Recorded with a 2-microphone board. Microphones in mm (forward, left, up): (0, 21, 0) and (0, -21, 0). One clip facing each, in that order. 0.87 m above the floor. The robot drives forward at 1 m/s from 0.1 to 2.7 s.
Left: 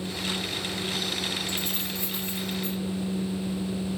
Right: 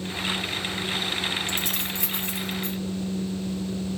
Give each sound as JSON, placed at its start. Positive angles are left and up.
{"t": 1.5, "sound": "keys jangling", "side_deg": -70, "distance_m": 2.5}